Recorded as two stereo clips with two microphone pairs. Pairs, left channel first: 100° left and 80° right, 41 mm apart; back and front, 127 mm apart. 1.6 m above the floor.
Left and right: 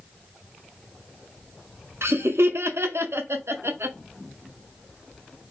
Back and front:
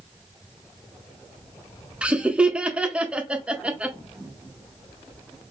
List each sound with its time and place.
2.0 s laughter: 80° right, 0.6 m